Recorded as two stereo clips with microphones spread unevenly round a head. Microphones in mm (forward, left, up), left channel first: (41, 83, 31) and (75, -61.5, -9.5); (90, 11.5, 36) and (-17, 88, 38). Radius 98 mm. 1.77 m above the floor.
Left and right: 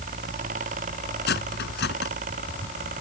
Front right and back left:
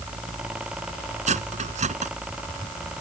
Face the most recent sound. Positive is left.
turn(degrees=115)